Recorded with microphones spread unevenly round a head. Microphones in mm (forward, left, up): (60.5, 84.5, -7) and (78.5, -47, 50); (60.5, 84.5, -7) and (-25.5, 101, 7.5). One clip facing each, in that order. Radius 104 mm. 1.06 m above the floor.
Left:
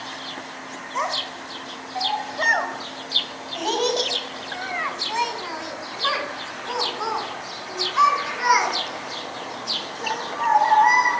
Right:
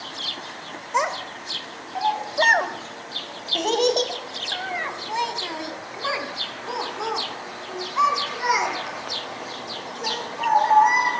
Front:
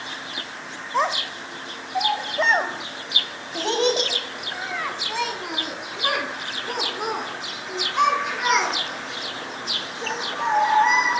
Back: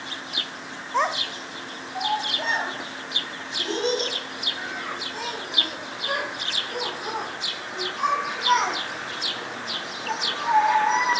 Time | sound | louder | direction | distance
0.9 | a child speaking | right 3 dB, front 1 dB | 100° right | 2 m